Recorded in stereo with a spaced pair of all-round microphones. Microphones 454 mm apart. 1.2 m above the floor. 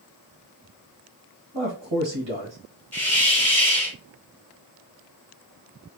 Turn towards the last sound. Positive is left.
turn(degrees=5)  # may be behind; listen again after turning